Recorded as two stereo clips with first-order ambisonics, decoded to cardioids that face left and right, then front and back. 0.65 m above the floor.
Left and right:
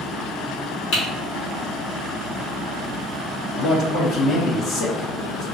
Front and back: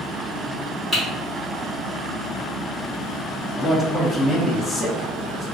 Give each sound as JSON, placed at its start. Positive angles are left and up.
{"t": 0.9, "sound": "typing on a keyboard", "azimuth_deg": 95, "distance_m": 1.7}
{"t": 3.6, "sound": "a man speaking", "azimuth_deg": 75, "distance_m": 0.7}